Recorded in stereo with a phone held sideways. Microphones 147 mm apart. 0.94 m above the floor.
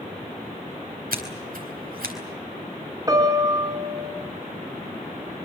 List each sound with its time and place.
1.1 s scissors: 80° right, 4 m
3.1 s a piano: 25° right (ahead or behind), 2.5 m